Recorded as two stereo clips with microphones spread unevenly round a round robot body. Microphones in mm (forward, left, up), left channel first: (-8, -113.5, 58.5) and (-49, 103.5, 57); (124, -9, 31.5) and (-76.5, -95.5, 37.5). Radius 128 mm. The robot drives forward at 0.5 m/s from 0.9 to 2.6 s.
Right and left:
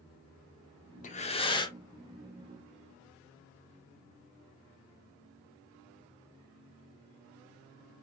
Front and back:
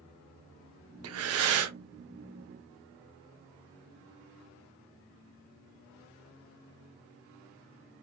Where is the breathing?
140° right, 0.7 m; by 1.8 s 150° right, 1.0 m.